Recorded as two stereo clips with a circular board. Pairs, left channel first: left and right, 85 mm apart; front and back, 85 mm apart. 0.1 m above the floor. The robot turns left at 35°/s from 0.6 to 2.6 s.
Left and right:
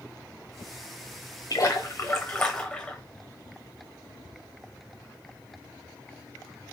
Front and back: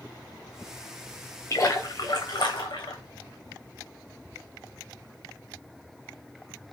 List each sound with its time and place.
1.5 s a splash: 55° left, 1.3 m; by 3.0 s 15° left, 1.3 m